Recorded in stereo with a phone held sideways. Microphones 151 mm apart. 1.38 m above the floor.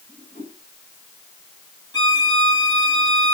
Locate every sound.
0.1 s a whoosh: 75° left (ahead or behind), 9 m
1.9 s a violin: 25° left (ahead or behind), 1.7 m